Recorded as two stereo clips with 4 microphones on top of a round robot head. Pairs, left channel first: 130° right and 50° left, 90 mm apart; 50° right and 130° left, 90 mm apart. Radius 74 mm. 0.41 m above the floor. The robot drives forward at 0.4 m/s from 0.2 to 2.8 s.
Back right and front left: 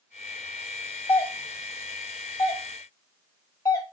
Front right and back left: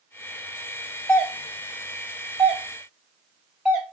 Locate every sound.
1.1 s a doorbell: 130° right, 1.4 m; by 3.8 s 155° right, 1.7 m